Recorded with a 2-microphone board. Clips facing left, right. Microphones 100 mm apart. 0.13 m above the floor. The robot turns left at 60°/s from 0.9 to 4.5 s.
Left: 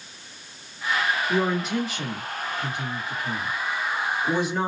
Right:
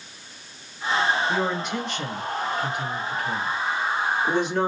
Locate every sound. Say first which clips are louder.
1.3 s a woman speaking: left 1 dB; 10° right (ahead or behind), 1.8 m; by 4.7 s 5° left (ahead or behind), 1.8 m